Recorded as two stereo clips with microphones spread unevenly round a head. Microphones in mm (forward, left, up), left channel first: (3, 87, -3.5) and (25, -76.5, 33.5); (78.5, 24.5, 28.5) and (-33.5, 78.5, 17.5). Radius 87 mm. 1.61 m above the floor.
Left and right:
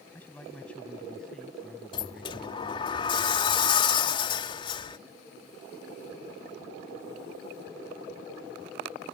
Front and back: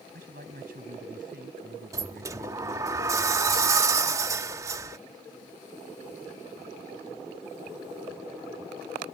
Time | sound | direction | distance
0.1 | a man speaking | straight behind | ?
1.9 | a sliding door | 145° left | ?